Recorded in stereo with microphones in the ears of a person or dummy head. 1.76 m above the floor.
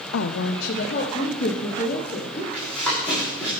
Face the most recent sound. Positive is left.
turn(degrees=5)  # may be behind; listen again after turning